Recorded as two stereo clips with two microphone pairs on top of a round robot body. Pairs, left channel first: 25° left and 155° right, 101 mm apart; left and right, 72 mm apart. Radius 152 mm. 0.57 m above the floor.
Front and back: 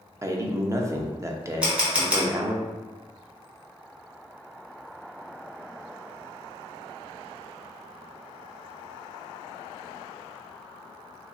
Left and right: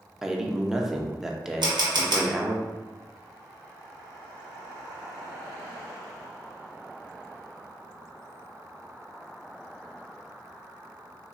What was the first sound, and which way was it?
A man speaking, 175° right.